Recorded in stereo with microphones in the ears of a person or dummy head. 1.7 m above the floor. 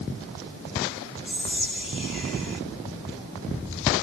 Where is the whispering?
5° right (ahead or behind), 1.9 m.